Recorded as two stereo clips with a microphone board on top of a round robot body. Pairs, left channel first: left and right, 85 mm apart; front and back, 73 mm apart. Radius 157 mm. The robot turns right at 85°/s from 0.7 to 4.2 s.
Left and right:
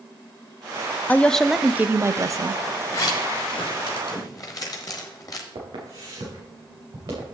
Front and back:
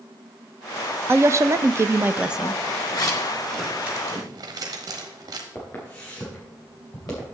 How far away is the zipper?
About 1.1 m.